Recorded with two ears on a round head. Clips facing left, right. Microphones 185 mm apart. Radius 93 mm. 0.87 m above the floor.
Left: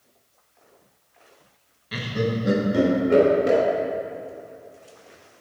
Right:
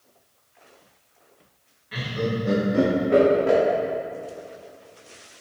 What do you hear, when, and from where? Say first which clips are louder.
1.9 s laughter: left 1 dB; 50° left (ahead or behind), 1.2 m